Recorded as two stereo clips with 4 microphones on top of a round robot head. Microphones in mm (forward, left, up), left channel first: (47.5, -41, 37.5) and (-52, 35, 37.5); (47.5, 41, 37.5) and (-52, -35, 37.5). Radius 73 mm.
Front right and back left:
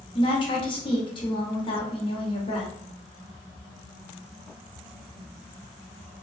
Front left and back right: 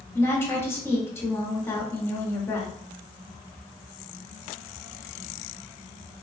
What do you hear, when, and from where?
0.1 s a woman speaking: 25° right, 1.2 m